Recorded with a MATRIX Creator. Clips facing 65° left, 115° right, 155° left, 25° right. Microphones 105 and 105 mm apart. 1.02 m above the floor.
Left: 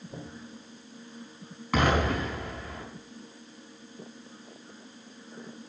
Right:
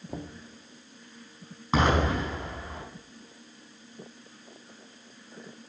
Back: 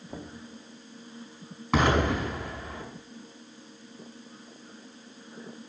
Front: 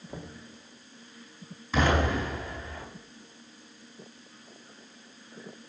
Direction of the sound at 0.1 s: 120° right.